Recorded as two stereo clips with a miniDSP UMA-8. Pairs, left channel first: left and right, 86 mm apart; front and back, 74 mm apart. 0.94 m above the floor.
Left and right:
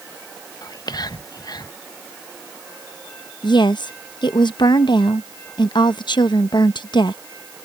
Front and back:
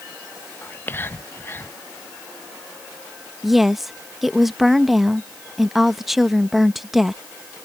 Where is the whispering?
55° left.